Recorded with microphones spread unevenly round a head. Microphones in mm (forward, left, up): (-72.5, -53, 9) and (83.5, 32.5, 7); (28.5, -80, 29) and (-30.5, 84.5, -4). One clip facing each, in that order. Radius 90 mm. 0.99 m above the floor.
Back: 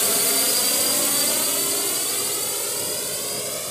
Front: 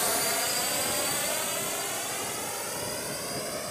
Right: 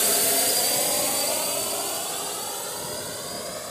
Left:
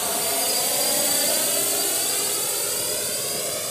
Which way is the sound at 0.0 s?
125° right.